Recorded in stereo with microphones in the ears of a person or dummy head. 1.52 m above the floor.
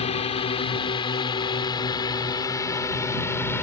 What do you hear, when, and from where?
0.0 s a drone: 35° left (ahead or behind); by 3.6 s 10° left (ahead or behind)